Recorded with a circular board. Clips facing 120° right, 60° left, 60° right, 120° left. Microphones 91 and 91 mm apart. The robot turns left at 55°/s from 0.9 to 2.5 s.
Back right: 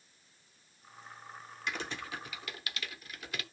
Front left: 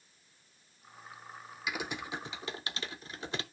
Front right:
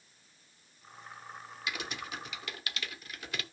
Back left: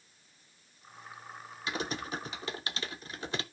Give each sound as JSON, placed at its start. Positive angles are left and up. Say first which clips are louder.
{"t": 1.7, "sound": "typing on a keyboard", "louder": "front left 2 dB, back left 4 dB", "azimuth_deg": 140, "distance_m": 0.6}